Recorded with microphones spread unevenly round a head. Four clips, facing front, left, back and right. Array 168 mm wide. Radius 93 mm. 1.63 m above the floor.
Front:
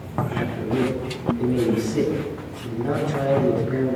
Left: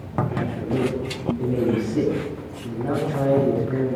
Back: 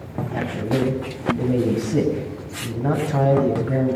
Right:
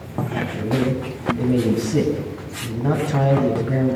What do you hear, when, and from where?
0.3 s a man speaking: 170° right, 8.5 m